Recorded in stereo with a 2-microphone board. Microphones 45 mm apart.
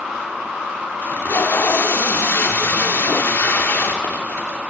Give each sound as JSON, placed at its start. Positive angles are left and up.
{"t": 1.0, "sound": "tape being pulled", "side_deg": 60, "distance_m": 1.0}